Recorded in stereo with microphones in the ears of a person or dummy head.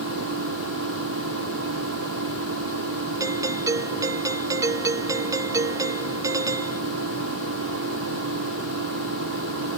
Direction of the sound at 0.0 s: 60° right (ahead or behind).